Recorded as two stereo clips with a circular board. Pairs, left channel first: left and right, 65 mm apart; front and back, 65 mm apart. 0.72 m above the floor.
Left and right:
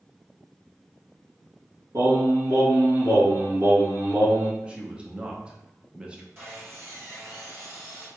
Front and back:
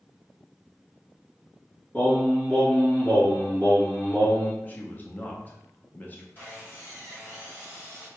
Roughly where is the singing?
Right.